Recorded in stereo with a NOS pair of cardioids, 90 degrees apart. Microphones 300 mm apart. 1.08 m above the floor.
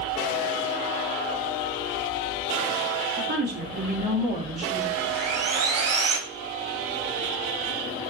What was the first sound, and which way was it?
A woman speaking, 40° right.